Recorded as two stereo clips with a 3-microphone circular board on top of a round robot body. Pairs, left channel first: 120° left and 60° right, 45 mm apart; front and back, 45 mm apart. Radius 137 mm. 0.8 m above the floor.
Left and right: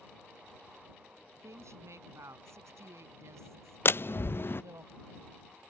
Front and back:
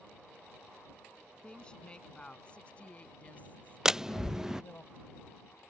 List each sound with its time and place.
1.3 s a woman speaking: 70° right; by 4.8 s 50° right
3.9 s a door slam: 105° left